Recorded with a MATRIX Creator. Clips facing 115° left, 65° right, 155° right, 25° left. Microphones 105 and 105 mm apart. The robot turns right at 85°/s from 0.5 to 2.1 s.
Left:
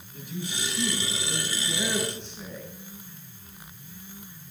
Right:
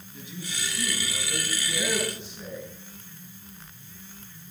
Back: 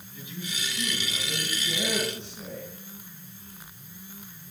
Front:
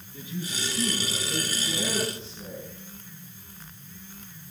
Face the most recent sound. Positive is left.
turn(degrees=-145)